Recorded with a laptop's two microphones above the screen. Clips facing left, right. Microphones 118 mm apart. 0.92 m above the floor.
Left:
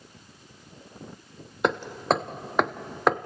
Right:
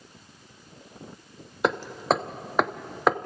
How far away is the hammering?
About 0.8 m.